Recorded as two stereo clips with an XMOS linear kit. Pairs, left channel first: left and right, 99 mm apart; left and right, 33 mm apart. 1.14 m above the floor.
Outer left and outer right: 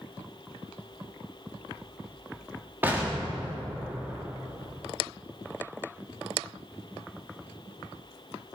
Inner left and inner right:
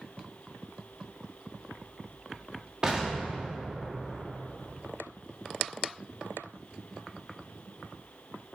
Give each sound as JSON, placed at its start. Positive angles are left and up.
{"t": 2.8, "sound": "an explosion", "side_deg": -20, "distance_m": 3.0}